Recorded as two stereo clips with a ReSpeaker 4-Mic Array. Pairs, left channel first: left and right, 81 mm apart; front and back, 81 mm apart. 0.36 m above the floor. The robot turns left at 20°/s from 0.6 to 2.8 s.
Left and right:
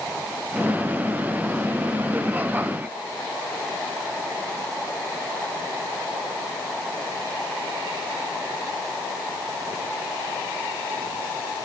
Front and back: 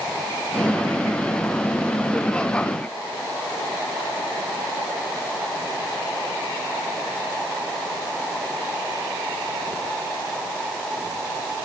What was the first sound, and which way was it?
Only background noise.